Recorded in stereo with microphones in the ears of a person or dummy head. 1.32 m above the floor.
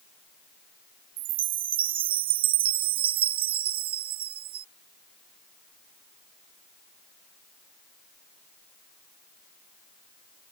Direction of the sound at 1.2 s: 25° right (ahead or behind).